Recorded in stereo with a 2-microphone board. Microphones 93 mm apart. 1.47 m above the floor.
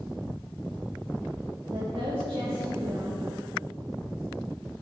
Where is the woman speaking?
75° right (ahead or behind), 2 m.